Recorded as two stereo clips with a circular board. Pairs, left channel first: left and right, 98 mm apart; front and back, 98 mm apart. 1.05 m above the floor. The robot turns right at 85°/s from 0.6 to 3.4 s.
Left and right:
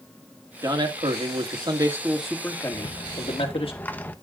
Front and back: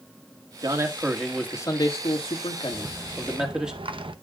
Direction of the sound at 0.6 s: 140° right.